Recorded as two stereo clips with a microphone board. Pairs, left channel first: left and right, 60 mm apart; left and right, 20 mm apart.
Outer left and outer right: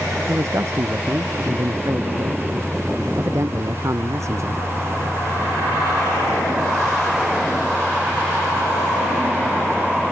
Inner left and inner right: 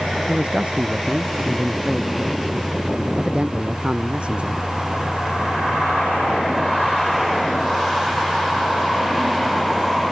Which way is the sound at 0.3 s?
55° right (ahead or behind).